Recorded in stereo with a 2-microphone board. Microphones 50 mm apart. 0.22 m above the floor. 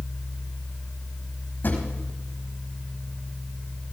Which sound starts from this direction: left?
A drawer, at 1.6 s.